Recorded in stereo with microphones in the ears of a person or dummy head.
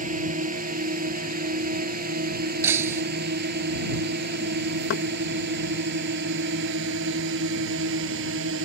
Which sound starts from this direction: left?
Knocking, at 4.9 s.